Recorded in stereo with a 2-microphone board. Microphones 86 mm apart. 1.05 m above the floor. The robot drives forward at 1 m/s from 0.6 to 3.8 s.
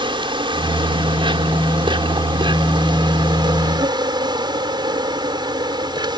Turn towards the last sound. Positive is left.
turn(degrees=-60)  # may be behind; listen again after turning